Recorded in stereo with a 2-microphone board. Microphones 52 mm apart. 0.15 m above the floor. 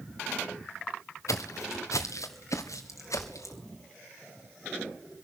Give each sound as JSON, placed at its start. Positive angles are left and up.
{"t": 1.3, "sound": "footsteps", "side_deg": 80, "distance_m": 1.3}